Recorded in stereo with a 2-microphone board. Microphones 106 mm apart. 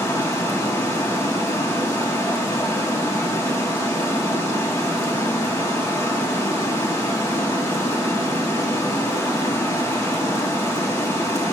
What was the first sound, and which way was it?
Running water, 30° left (ahead or behind).